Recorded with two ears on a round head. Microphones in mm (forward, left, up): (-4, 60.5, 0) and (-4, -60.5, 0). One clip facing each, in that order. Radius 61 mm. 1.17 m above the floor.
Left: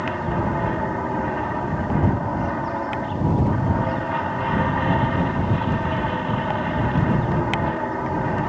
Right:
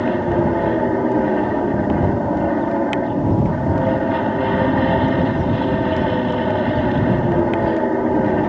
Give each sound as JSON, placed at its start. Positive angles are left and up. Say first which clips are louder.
{"t": 0.0, "sound": "an aircraft", "louder": "right 7 dB", "side_deg": -45}